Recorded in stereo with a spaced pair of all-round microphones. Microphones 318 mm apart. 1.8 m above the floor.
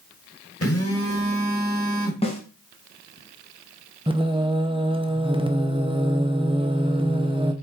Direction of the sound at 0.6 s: 45° left (ahead or behind).